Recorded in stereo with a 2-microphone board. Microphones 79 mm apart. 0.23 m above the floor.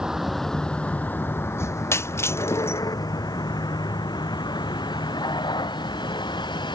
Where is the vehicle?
10° right (ahead or behind); by 6.8 s 70° left (ahead or behind).